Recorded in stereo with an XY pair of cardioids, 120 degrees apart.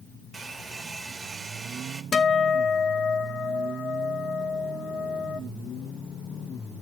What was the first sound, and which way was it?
A hair dryer, 20° right.